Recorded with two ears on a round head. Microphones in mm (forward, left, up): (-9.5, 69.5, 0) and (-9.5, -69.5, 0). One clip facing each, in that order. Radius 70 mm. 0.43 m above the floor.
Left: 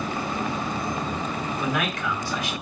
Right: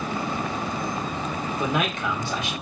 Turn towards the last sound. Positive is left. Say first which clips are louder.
# right 2 dB
turn(degrees=-20)  # may be behind; listen again after turning